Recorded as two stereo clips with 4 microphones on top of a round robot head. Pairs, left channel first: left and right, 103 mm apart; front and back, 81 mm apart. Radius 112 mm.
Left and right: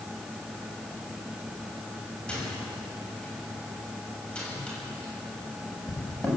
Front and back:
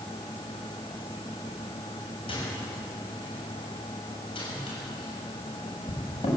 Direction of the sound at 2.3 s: 10° left.